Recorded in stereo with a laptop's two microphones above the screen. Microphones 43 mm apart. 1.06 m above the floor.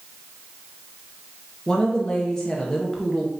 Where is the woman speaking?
20° left (ahead or behind), 0.6 m.